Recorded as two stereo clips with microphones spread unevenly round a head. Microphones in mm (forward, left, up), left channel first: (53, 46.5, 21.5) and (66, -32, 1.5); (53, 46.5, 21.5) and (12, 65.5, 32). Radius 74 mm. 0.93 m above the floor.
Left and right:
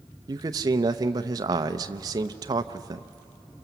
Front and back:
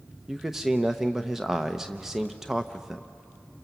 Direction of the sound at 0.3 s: 115° right.